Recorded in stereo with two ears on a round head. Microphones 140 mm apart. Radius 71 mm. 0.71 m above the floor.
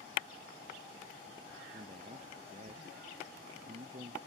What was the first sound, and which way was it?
A man speaking, 45° right (ahead or behind).